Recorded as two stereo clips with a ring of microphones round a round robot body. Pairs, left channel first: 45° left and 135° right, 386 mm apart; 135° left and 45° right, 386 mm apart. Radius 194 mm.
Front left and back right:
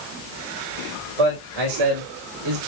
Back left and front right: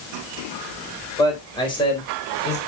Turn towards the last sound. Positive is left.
turn(degrees=-155)